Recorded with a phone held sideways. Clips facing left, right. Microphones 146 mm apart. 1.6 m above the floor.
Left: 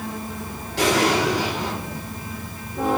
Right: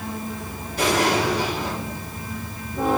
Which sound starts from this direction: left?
An explosion, at 0.8 s.